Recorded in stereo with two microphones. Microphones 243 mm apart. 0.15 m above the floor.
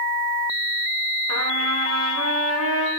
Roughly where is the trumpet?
Right.